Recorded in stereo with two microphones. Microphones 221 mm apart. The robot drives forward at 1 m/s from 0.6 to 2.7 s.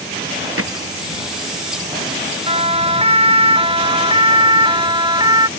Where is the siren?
25° right (ahead or behind); by 5.5 s 20° right (ahead or behind).